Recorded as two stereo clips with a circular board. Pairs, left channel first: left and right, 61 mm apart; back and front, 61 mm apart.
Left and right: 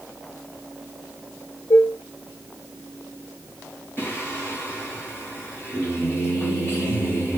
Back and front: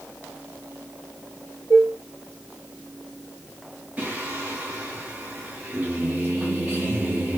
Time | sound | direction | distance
1.7 | dishes clattering | 60° left | 3 m
4.0 | singing | 55° left | 2 m